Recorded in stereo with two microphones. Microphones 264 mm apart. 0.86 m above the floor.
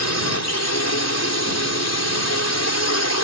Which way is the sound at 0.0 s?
70° left (ahead or behind).